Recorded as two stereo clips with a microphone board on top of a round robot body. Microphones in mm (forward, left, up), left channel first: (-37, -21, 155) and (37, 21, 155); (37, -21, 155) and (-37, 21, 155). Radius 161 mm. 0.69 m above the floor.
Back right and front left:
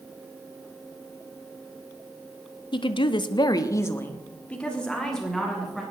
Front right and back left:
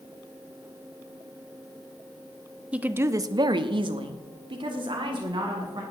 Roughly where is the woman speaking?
Behind right.